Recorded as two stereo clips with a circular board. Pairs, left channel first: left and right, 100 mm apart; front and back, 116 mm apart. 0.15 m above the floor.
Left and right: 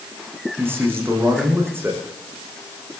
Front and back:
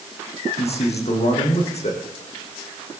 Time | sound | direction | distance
0.6 | a man speaking | 20° right | 7.5 m